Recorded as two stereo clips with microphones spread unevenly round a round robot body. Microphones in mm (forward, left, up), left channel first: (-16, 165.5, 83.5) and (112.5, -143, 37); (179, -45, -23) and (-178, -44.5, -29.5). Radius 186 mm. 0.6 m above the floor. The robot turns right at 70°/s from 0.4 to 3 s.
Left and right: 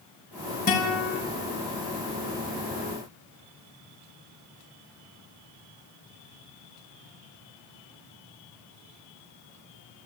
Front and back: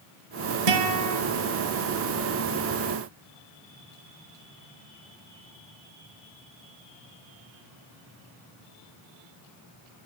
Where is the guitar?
175° right, 5 m; by 1.2 s 140° right, 5 m.